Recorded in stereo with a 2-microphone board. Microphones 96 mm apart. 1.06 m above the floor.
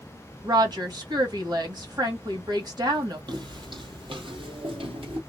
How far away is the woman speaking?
About 1.8 m.